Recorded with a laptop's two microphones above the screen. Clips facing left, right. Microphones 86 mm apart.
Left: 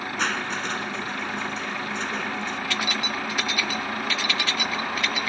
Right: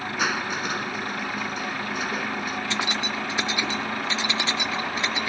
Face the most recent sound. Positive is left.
turn(degrees=-25)  # may be behind; listen again after turning